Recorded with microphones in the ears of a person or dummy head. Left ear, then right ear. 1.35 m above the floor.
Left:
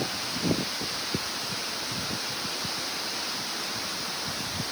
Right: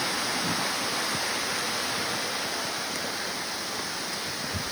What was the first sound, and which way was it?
Only background noise.